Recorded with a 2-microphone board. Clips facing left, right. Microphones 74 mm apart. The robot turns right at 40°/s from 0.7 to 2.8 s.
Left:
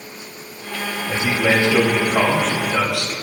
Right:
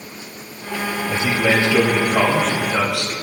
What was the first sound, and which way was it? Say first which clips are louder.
A man speaking: even; 130° left.